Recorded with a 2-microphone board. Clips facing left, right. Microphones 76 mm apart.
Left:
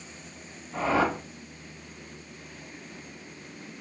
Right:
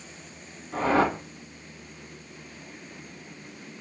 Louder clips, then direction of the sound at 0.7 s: Right 2 dB; 60° right (ahead or behind).